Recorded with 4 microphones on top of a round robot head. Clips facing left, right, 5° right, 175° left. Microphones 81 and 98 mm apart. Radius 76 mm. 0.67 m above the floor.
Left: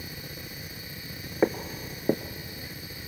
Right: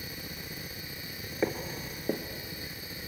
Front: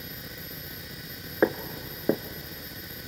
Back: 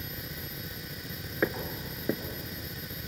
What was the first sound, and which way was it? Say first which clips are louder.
Footsteps: left 6 dB, front 6 dB; 40° left.